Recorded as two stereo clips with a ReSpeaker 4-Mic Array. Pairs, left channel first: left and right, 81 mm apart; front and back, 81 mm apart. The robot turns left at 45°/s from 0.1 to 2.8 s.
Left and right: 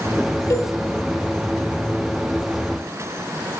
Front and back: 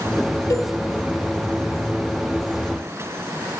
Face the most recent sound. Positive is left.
turn(degrees=-60)